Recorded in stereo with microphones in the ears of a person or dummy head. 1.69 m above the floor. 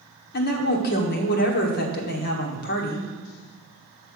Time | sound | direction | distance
0.3 | a woman speaking | 65° left (ahead or behind) | 1.2 m